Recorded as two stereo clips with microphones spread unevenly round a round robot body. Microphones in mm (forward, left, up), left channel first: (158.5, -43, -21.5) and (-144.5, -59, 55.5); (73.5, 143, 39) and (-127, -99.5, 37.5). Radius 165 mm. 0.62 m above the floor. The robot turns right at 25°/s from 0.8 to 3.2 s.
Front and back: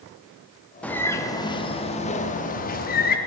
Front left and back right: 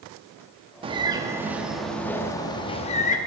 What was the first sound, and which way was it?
A bird, 65° right.